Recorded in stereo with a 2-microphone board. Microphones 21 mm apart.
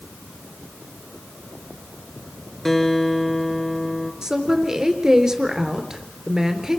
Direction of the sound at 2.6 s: 20° left (ahead or behind).